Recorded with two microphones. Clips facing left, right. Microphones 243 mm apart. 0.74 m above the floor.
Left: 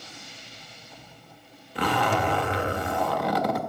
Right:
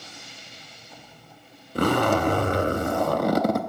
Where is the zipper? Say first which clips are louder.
Right 5 dB; 50° right (ahead or behind), 0.6 m.